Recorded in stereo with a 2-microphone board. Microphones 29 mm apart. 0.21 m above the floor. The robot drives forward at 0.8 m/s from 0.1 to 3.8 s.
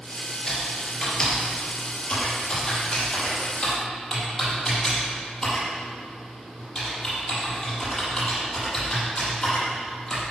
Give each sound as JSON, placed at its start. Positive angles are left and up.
{"t": 0.5, "sound": "typing on a keyboard", "side_deg": 25, "distance_m": 4.0}